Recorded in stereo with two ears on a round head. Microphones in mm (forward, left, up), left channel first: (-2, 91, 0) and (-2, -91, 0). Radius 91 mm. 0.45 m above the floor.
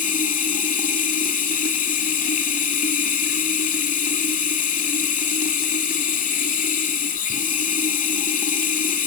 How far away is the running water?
About 1.5 m.